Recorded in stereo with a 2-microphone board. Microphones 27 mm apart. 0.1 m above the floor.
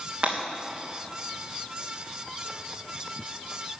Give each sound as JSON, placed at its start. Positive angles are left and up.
{"t": 0.2, "sound": "breaking glass", "side_deg": -45, "distance_m": 3.5}